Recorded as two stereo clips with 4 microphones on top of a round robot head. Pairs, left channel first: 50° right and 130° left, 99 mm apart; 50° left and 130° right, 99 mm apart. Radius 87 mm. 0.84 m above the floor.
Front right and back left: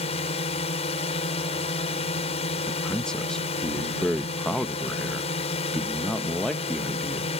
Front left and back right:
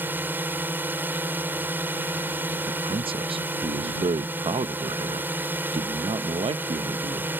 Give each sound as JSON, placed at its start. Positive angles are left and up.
{"t": 0.0, "sound": "a drone", "azimuth_deg": -60}
{"t": 2.7, "sound": "a man speaking", "azimuth_deg": -130}